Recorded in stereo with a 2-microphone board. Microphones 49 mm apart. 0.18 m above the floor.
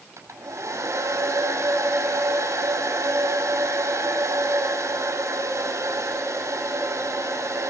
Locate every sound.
0.2 s a hair dryer: 80° right, 6.5 m